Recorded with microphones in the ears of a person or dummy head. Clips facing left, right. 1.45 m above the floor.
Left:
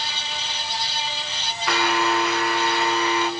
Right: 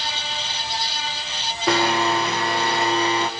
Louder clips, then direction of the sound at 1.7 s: Right 2 dB; 35° right (ahead or behind).